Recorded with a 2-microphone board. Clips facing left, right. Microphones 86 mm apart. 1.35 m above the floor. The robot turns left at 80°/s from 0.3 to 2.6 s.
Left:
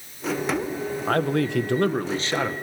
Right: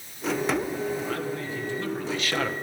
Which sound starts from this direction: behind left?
A man speaking, at 1.1 s.